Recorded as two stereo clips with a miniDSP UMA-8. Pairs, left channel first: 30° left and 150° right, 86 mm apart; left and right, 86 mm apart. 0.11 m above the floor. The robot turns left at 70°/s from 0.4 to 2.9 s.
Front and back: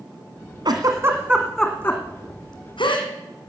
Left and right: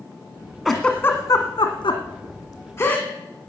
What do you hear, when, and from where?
0.7 s a giggle: 175° right, 2 m; by 3.1 s 25° left, 2 m